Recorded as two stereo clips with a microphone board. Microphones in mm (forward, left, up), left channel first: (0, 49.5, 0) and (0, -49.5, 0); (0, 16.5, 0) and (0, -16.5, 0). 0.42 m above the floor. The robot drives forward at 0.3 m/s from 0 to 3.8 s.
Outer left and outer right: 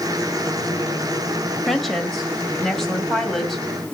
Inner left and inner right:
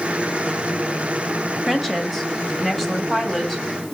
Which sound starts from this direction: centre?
A woman speaking, at 1.7 s.